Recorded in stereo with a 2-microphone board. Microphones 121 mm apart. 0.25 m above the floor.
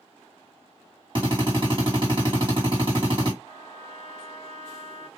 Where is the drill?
45° right (ahead or behind), 2.5 m.